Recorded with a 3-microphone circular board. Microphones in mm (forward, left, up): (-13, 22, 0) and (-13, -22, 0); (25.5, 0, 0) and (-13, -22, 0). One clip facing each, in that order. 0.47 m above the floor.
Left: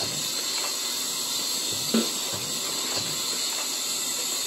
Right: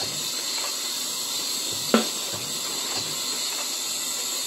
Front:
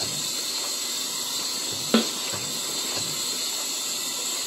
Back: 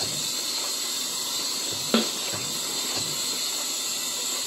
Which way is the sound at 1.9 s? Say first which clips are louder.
Right 4 dB, front 2 dB; 55° right.